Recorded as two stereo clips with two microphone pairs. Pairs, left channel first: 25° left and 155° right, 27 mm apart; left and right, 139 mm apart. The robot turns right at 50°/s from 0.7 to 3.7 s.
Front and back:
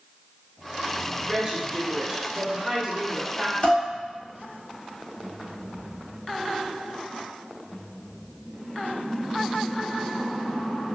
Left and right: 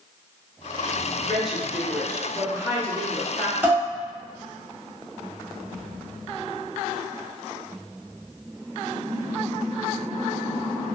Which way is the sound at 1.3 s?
175° right.